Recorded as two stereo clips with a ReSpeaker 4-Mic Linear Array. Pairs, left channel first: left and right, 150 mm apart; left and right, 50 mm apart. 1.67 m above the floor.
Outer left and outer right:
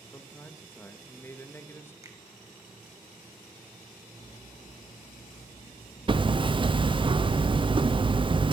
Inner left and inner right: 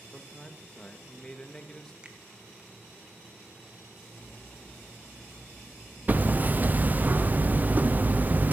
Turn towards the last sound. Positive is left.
turn(degrees=-35)  # may be behind; listen again after turning